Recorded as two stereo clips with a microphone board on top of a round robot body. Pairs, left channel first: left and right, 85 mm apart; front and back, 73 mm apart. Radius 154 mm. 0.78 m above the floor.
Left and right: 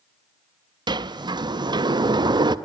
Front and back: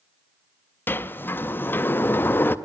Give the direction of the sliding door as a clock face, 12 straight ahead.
2 o'clock.